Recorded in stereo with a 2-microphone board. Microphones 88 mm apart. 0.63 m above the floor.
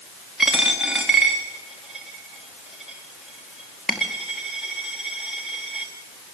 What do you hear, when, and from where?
0.4 s a dropped coin: centre (ahead or behind), 4.5 m